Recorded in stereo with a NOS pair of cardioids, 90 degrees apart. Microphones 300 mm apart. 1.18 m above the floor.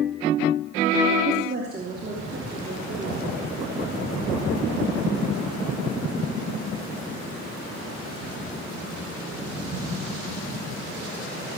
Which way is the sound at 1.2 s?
30° right.